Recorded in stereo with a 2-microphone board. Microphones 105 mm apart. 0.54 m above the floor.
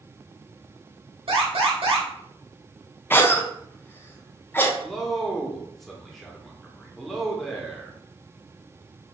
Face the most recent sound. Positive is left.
turn(degrees=5)  # may be behind; listen again after turning